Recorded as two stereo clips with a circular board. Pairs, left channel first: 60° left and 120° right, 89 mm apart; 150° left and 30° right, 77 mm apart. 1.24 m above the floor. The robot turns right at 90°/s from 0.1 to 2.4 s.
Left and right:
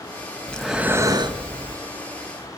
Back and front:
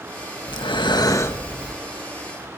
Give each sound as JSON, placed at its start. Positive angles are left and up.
{"t": 0.5, "sound": "breathing", "azimuth_deg": 135, "distance_m": 1.7}